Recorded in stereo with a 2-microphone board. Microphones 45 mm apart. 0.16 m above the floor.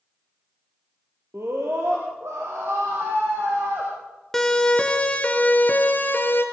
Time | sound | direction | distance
1.3 | a scream | 70° right (ahead or behind) | 4.5 m
4.3 | a siren | 10° left (ahead or behind) | 2.5 m